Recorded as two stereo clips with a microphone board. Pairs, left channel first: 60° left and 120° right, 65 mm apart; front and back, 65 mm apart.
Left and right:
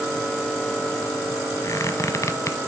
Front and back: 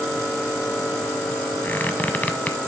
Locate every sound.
1.6 s a squeak: 55° left, 1.4 m